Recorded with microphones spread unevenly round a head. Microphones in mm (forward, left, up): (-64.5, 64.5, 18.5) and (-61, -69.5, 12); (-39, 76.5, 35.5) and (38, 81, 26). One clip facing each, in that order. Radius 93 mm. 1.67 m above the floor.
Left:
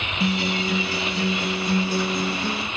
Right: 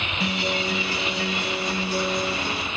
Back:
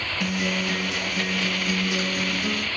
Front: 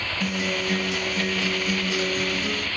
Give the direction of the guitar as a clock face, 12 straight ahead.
8 o'clock.